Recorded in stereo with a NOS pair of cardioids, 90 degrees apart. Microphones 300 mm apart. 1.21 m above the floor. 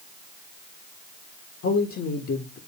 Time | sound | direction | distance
1.6 | a man speaking | 45° left | 1.5 m